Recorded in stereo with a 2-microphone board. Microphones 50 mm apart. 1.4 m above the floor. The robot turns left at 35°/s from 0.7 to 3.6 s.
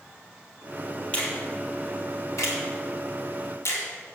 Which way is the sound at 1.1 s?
25° left (ahead or behind).